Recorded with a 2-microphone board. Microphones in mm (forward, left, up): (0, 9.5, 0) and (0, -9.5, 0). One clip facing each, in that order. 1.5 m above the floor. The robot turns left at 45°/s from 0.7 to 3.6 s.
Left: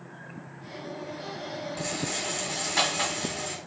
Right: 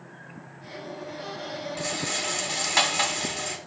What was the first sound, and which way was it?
A rattle, 25° right.